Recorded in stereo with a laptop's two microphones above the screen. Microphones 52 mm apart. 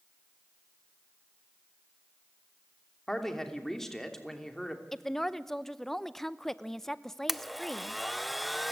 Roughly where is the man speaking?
Centre.